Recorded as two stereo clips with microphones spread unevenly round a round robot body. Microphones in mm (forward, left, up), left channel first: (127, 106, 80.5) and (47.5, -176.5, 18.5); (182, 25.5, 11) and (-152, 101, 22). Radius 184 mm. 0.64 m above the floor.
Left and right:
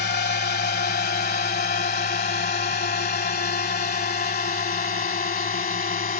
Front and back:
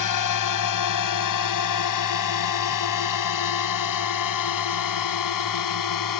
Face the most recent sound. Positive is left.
turn(degrees=10)